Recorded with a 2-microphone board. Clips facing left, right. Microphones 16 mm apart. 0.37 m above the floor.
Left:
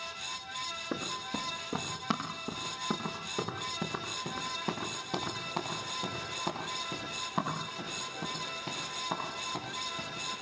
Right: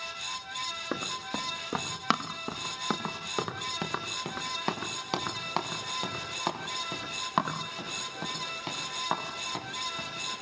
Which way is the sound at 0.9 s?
55° right (ahead or behind).